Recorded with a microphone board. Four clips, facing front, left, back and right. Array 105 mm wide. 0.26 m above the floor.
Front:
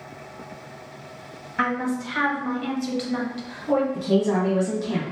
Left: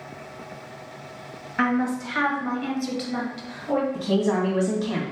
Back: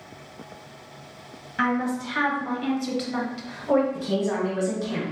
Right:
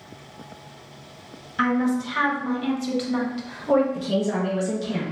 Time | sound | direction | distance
1.6 | a woman speaking | 65° left | 1.7 m
3.9 | a woman speaking | 75° left | 1.5 m